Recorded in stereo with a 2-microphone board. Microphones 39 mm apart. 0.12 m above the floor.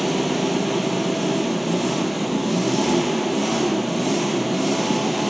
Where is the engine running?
5° right (ahead or behind), 0.8 m.